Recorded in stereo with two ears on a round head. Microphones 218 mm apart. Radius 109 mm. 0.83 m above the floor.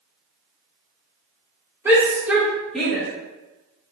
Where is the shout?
10° right (ahead or behind), 2.5 m; by 3.1 s 5° left (ahead or behind), 1.7 m.